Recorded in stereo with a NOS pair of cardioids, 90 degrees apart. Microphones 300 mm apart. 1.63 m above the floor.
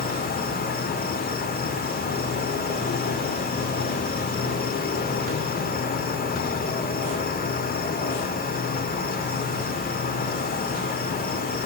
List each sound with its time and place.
0.0 s an insect: 30° left, 1.7 m